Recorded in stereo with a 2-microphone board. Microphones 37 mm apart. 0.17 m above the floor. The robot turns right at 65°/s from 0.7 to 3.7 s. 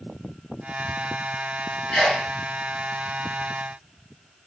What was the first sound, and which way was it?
A sneeze, 20° left (ahead or behind).